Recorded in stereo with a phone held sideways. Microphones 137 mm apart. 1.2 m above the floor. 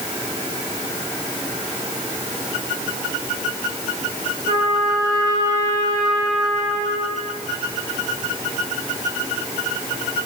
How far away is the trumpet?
About 3 m.